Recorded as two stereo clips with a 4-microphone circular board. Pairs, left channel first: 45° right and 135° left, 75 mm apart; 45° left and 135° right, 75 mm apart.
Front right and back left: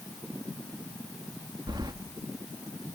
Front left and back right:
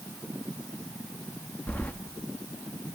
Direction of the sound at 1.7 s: 115° left.